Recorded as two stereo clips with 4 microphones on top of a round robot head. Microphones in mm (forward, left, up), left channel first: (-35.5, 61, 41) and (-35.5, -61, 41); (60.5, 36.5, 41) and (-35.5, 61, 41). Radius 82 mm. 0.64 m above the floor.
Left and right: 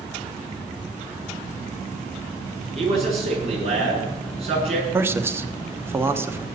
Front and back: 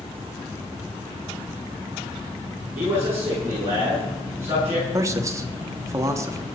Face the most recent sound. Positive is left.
turn(degrees=-150)